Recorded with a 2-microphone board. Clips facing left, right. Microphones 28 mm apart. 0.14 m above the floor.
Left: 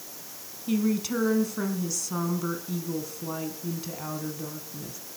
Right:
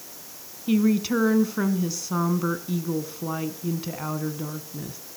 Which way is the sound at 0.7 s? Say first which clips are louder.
Right 5 dB; 20° right (ahead or behind).